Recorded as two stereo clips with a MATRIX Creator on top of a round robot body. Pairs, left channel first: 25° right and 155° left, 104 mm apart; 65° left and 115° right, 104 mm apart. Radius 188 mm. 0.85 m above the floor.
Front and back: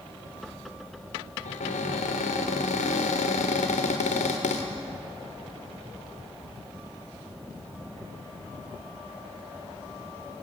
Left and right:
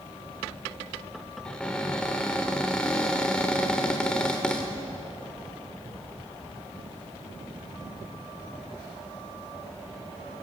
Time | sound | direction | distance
1.4 | a cupboard door | 15° right | 0.8 m